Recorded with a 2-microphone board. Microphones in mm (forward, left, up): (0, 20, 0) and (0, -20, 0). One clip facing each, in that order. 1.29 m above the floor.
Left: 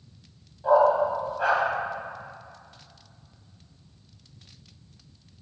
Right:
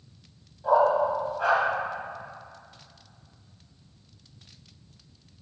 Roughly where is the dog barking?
Centre.